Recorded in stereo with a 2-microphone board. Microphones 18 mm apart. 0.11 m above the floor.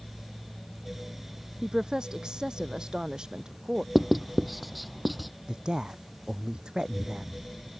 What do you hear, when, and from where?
1.6 s a woman speaking: 55° right (ahead or behind)
4.0 s writing: centre (ahead or behind)
5.5 s a woman speaking: 50° right (ahead or behind)